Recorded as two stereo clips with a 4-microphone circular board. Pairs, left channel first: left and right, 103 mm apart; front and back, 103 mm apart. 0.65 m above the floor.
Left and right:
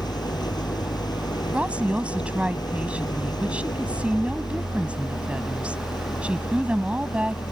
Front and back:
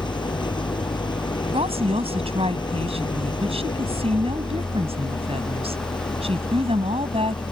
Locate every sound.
0.0 s an engine running: 40° left
1.5 s a woman speaking: 170° right